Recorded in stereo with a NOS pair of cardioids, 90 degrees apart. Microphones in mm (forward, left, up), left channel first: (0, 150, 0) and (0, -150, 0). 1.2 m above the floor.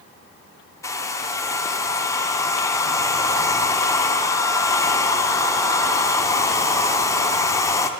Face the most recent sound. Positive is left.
turn(degrees=10)